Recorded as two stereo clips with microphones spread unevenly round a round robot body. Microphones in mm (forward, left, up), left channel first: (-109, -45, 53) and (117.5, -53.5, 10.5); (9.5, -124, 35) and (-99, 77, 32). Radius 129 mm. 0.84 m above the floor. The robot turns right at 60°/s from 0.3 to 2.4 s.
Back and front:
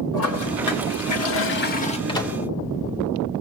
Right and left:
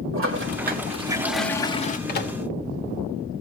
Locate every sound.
0.1 s a toilet flushing: 145° left, 2 m; by 2.0 s 115° right, 2 m
2.1 s a microwave: 110° right, 2.5 m; by 2.4 s 95° right, 2.5 m